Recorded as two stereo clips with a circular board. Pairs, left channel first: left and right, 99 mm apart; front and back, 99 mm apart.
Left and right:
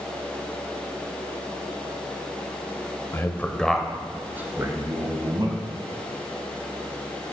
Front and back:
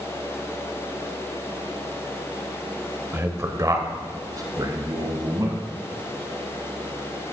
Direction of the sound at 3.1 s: 130° left.